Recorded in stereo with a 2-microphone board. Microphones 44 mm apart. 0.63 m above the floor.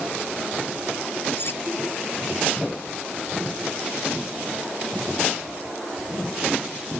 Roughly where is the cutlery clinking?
Left.